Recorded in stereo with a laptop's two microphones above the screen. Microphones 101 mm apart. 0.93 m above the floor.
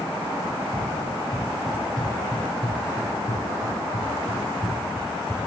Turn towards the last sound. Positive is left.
turn(degrees=-20)  # may be behind; listen again after turning